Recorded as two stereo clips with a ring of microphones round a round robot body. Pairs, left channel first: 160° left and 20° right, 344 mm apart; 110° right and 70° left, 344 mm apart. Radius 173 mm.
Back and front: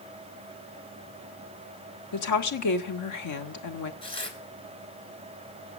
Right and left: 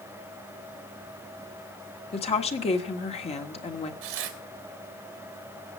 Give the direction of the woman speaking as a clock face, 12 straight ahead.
6 o'clock.